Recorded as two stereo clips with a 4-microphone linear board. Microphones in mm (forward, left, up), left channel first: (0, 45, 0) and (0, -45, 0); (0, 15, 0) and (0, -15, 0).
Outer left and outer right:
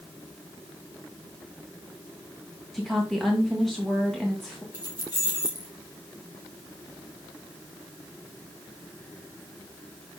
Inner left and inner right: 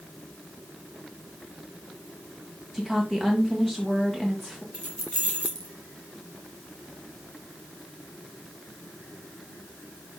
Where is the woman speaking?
Centre (ahead or behind), 1.7 m.